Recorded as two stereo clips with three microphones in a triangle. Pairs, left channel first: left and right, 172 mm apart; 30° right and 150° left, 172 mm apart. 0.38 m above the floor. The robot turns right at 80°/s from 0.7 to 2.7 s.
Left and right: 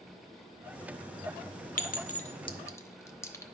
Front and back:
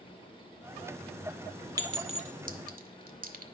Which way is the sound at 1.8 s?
85° left.